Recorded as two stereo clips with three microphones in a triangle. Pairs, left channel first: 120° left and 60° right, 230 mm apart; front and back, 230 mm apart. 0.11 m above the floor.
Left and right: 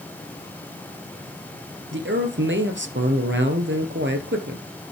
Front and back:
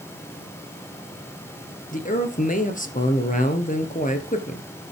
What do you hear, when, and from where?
1.9 s a man speaking: 45° right, 2.0 m